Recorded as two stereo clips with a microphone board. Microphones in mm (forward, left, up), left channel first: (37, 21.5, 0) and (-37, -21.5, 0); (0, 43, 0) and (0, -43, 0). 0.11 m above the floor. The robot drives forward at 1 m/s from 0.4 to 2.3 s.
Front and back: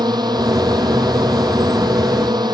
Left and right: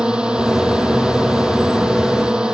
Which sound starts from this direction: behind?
A drone, at 0.0 s.